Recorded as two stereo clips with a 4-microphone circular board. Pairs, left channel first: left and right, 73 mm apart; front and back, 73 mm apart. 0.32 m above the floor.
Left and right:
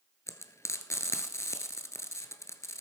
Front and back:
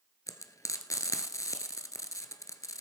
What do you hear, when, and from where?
0.3 s frying: 40° left, 1.2 m